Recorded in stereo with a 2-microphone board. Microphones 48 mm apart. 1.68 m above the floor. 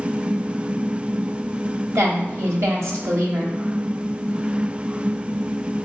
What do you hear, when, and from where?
1.9 s a woman speaking: 75° right (ahead or behind), 1.2 m